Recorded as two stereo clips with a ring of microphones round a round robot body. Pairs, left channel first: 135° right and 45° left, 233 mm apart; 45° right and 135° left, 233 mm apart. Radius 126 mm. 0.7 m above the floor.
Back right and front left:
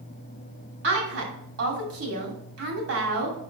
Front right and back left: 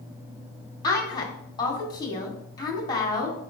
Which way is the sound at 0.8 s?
25° left.